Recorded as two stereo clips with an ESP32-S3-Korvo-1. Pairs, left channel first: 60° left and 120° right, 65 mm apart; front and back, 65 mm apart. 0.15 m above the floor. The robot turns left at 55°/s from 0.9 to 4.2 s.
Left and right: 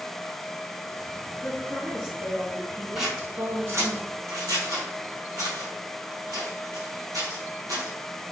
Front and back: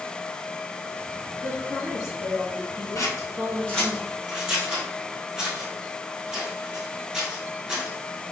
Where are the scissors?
35° right, 2 m; by 7.9 s 100° right, 2 m.